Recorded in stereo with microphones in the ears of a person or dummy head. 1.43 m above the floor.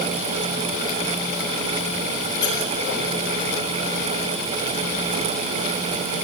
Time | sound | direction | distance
2.4 | a squeak | 20° left (ahead or behind) | 6 m